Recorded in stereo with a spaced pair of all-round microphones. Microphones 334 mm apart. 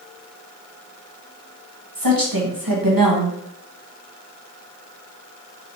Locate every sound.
1.9 s a woman speaking: 80° right, 1.3 m